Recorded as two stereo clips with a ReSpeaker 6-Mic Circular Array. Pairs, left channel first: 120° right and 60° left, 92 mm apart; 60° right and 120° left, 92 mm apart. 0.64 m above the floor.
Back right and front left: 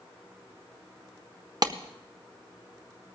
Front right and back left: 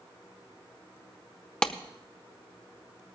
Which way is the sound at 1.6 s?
20° left.